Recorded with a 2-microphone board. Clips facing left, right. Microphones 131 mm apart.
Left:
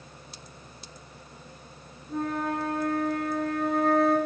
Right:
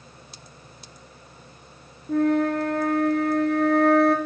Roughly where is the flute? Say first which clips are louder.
Right 9 dB; right.